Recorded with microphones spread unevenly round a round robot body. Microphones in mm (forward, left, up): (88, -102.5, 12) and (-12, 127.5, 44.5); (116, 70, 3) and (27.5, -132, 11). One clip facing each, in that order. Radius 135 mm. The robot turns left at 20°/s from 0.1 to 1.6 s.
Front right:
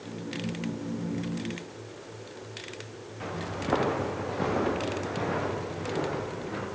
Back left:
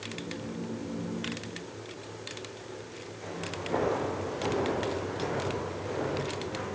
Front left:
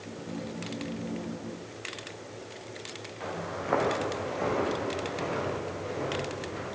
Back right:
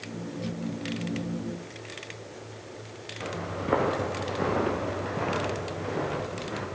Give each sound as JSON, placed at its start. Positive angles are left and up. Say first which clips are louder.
{"t": 3.2, "sound": "footsteps", "louder": "front right 4 dB, back right 3 dB", "azimuth_deg": -60, "distance_m": 5.0}